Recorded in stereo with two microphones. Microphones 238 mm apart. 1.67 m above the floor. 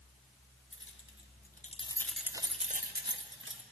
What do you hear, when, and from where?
0.7 s keys jangling: 60° left (ahead or behind), 1.2 m; by 3.6 s 60° right (ahead or behind), 1.3 m